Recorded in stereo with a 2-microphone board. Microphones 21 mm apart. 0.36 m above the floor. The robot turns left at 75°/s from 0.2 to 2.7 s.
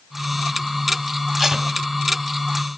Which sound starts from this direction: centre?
Tape being pulled, at 1.4 s.